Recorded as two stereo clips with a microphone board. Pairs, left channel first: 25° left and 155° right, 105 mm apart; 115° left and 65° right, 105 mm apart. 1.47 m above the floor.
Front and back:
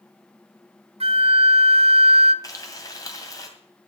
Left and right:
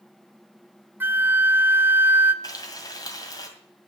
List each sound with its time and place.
1.0 s a flute: 140° right, 0.6 m
2.4 s frying: 70° left, 2 m